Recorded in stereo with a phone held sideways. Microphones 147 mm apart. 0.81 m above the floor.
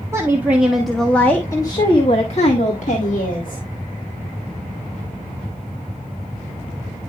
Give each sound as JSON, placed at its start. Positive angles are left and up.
{"t": 0.1, "sound": "a woman speaking", "side_deg": -20, "distance_m": 1.3}